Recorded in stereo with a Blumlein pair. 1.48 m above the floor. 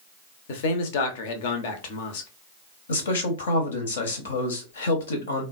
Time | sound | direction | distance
0.5 | a man speaking | 50° left | 0.8 m
2.9 | a man speaking | 65° left | 1.0 m